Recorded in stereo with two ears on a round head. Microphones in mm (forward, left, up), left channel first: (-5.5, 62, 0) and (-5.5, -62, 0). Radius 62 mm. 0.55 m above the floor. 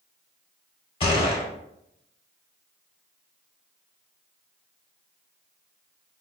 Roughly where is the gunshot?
Left.